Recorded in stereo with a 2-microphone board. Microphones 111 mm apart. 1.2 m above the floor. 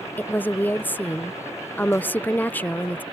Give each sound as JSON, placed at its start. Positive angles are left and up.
{"t": 0.2, "sound": "a woman speaking", "side_deg": 15}